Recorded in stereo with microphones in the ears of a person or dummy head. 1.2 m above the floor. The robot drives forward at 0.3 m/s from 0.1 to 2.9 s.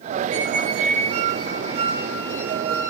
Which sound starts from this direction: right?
A squeak, at 0.3 s.